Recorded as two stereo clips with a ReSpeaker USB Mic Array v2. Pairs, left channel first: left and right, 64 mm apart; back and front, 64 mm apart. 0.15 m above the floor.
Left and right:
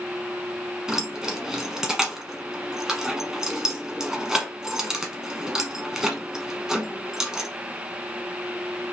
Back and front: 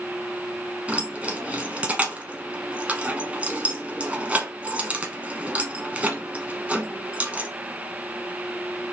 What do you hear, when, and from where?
0.9 s keys jangling: 20° right, 0.9 m